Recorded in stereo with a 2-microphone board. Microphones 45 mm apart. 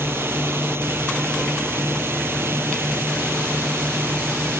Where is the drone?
65° right (ahead or behind).